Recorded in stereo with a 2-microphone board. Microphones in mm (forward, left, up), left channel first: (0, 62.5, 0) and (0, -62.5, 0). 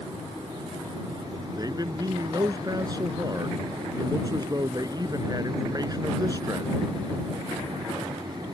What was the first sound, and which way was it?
A man speaking, 30° right (ahead or behind).